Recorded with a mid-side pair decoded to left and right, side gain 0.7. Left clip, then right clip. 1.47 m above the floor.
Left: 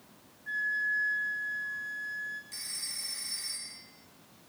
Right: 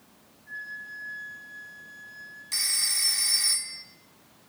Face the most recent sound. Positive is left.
turn(degrees=-50)